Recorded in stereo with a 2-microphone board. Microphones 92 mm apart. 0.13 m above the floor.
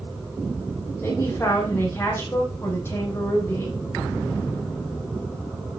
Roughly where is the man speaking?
Left.